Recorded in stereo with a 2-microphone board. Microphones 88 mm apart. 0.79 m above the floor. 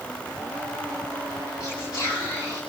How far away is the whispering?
About 8 m.